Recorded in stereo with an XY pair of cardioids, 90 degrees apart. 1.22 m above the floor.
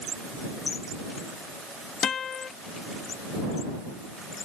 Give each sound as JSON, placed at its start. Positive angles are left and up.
{"t": 2.0, "sound": "a guitar", "azimuth_deg": 65}